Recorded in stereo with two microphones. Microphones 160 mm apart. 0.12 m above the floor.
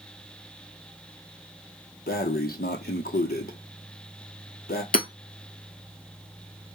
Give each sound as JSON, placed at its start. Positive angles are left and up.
{"t": 2.1, "sound": "breathing", "side_deg": 70, "distance_m": 0.6}
{"t": 4.9, "sound": "hammering", "side_deg": 65, "distance_m": 0.8}